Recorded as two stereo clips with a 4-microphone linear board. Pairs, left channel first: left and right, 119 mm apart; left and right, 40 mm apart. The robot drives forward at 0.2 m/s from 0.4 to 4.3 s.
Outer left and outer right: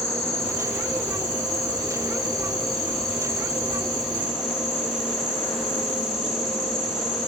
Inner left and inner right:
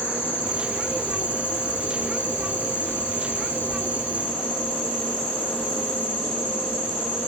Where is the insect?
65° left (ahead or behind), 2 m; by 7.3 s 55° left (ahead or behind), 2.5 m.